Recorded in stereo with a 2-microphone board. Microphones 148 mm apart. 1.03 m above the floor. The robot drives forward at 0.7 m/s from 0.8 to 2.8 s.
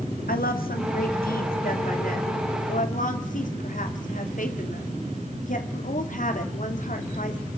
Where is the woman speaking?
80° left, 2.5 m; by 7.4 s 60° left (ahead or behind), 3 m.